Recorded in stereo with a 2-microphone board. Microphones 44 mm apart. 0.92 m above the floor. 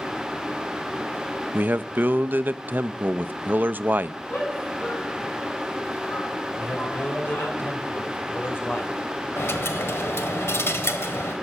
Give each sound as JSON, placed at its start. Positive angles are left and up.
{"t": 1.5, "sound": "a man speaking", "side_deg": -40, "distance_m": 0.5}
{"t": 4.3, "sound": "a shout", "side_deg": 60, "distance_m": 7.5}
{"t": 6.6, "sound": "a man speaking", "side_deg": 50, "distance_m": 3.5}
{"t": 9.4, "sound": "a dropped coin", "side_deg": 70, "distance_m": 1.5}